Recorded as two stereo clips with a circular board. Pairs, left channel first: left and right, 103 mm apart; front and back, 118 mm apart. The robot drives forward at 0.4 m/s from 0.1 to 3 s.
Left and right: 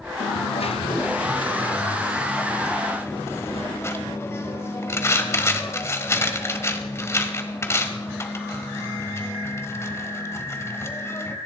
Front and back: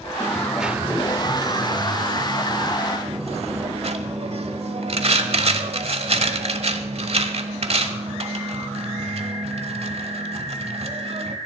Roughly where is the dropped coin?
Left.